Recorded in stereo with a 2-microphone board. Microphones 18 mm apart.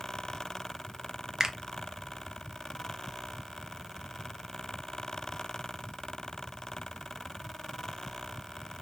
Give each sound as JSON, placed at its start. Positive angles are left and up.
{"t": 1.4, "sound": "a finger snap", "side_deg": -35, "distance_m": 0.6}